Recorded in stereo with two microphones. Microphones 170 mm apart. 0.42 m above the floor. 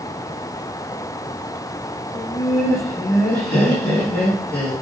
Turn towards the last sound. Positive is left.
turn(degrees=75)  # may be behind; listen again after turning